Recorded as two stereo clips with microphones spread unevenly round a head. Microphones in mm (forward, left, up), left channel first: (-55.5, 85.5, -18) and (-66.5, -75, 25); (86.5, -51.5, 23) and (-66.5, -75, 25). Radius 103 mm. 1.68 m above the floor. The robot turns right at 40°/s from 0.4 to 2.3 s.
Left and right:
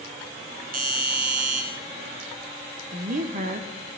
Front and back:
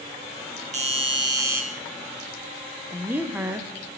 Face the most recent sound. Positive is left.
turn(degrees=-95)